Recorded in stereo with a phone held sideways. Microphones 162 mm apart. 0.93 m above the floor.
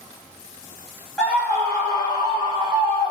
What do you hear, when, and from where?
1.2 s a scream: 5° left (ahead or behind), 0.9 m; by 3.1 s 35° left (ahead or behind), 1.9 m